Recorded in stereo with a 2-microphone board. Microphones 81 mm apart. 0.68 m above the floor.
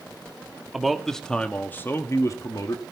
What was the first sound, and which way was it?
A man speaking, 5° right (ahead or behind).